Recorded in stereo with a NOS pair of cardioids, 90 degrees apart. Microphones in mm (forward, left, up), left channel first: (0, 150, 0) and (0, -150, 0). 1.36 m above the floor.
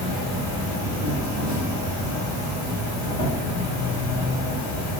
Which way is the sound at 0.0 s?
70° left.